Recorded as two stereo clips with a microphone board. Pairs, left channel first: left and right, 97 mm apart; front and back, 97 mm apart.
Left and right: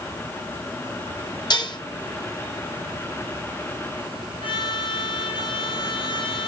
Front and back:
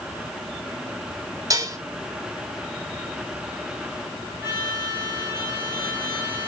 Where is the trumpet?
110° left, 8 m.